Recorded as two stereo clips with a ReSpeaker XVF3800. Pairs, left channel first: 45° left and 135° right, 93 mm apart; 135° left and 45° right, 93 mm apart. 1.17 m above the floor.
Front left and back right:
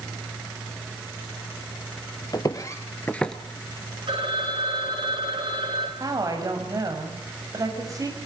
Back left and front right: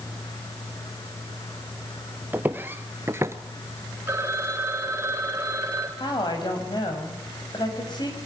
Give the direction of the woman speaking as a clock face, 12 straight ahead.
6 o'clock.